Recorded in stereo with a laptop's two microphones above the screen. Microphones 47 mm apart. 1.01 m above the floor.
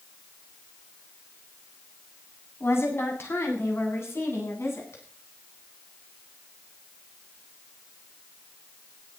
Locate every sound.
2.6 s a woman speaking: 60° left (ahead or behind), 8 m; by 5.0 s 65° left (ahead or behind), 9 m